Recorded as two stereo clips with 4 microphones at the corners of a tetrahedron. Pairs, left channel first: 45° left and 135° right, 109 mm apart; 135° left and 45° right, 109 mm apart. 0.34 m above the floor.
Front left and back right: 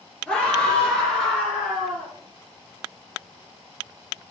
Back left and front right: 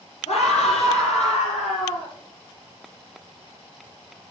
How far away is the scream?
About 5.5 m.